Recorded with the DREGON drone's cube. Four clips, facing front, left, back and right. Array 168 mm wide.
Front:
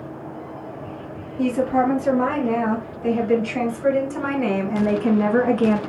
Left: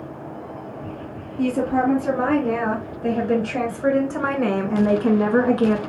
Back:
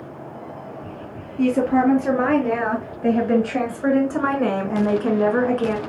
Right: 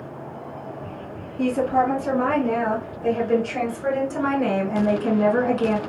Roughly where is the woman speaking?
Behind.